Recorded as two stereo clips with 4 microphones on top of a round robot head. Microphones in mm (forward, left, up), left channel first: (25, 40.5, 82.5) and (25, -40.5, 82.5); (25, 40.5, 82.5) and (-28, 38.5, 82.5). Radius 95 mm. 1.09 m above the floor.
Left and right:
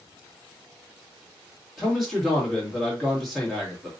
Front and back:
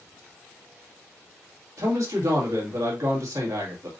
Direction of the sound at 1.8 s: Straight behind.